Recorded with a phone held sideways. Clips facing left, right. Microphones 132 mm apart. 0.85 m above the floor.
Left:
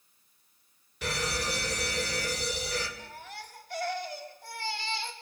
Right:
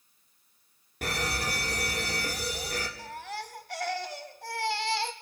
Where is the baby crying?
80° right, 2 m.